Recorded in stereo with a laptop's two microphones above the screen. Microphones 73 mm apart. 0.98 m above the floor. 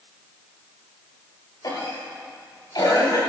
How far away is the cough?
About 5 m.